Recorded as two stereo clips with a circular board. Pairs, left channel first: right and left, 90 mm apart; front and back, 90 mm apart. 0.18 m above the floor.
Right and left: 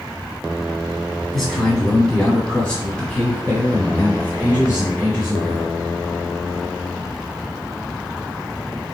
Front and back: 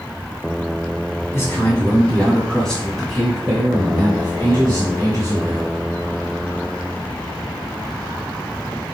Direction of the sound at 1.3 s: 5° right.